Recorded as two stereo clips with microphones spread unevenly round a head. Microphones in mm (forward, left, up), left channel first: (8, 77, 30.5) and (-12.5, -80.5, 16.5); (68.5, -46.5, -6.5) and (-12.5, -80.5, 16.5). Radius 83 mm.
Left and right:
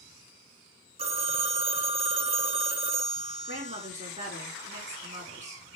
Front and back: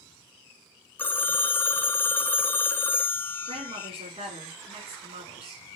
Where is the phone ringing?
50° right, 0.9 m.